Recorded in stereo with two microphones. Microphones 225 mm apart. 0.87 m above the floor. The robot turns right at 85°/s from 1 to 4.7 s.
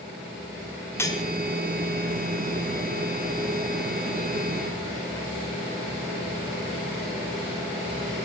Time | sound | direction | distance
1.0 | cutlery clinking | 10° left (ahead or behind) | 1.9 m